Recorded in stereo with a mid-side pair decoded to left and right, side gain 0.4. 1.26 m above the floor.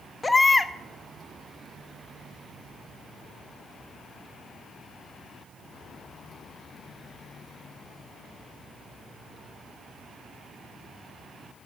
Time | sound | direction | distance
0.2 | a baby crying | 25° left | 1.1 m